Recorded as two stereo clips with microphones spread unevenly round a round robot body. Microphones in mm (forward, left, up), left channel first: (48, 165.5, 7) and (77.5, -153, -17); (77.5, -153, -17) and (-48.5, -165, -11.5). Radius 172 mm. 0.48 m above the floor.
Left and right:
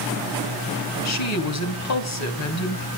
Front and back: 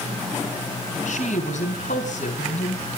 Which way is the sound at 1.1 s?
60° left.